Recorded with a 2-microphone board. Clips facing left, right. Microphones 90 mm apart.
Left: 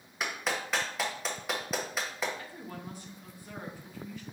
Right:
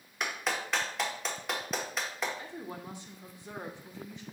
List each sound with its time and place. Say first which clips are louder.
0.2 s a clap: even; centre (ahead or behind), 0.9 m
2.4 s a woman speaking: right 1 dB; 20° right (ahead or behind), 0.7 m